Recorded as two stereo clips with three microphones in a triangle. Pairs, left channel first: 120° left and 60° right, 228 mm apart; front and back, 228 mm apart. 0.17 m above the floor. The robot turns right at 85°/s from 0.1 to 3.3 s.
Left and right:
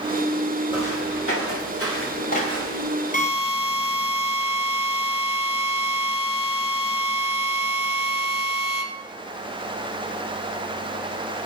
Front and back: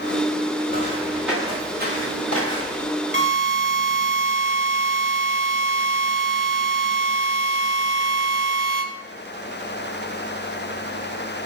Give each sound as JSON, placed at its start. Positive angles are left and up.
{"t": 0.7, "sound": "footsteps", "azimuth_deg": 50, "distance_m": 8.5}
{"t": 3.1, "sound": "a drill", "azimuth_deg": 165, "distance_m": 2.5}